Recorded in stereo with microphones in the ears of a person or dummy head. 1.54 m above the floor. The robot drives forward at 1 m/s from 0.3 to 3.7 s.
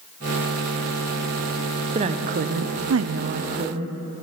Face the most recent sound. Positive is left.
turn(degrees=-35)  # may be behind; listen again after turning